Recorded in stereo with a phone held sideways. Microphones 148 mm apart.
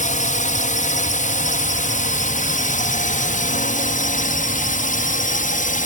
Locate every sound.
0.0 s a drone: 55° left (ahead or behind); by 5.8 s 60° left (ahead or behind)